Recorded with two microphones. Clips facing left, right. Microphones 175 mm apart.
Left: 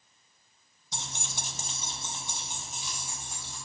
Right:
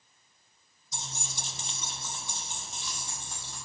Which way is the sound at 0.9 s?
80° left.